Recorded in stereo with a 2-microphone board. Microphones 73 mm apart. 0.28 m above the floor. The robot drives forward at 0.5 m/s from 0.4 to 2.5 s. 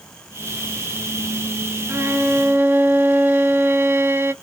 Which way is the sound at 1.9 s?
40° right (ahead or behind).